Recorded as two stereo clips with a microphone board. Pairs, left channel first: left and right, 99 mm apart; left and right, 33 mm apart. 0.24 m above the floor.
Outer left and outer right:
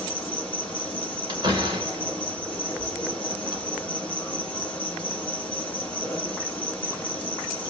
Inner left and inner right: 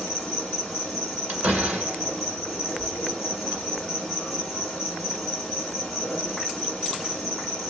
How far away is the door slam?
About 1.9 m.